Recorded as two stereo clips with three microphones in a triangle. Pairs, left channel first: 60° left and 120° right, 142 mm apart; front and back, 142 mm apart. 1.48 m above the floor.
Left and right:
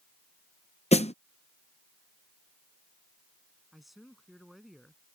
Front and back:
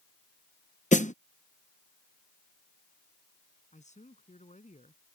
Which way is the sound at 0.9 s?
20° left.